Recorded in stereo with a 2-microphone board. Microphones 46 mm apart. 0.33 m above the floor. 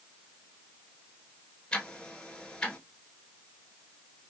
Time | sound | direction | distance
1.7 | ticking | 20° left (ahead or behind) | 0.9 m